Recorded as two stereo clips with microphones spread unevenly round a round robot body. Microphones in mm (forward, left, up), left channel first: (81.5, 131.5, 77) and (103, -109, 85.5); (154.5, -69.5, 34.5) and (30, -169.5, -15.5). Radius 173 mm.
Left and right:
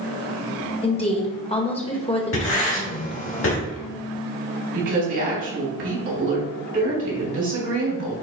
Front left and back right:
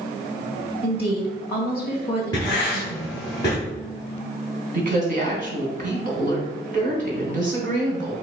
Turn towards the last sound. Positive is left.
turn(degrees=-125)